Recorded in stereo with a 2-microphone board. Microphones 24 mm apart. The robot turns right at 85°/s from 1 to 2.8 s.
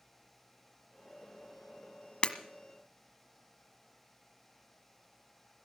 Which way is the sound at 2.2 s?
50° left (ahead or behind).